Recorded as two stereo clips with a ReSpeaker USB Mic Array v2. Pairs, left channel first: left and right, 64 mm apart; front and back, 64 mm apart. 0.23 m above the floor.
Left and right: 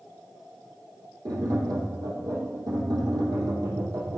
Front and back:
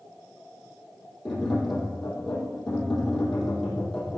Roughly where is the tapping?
Right.